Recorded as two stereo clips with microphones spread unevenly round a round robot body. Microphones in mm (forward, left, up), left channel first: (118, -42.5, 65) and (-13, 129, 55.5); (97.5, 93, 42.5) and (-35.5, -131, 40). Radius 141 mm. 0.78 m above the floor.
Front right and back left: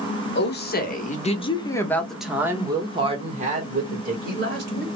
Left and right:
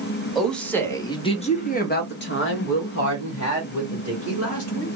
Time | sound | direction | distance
0.3 | a woman speaking | 30° right | 1.2 m